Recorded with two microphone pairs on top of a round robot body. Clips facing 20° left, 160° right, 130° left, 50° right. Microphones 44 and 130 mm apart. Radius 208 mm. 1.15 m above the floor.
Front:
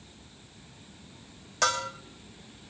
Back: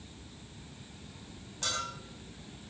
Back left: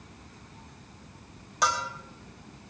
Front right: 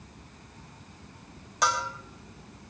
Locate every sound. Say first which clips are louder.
1.6 s a bell: front 9 dB, even; 40° left, 1.0 m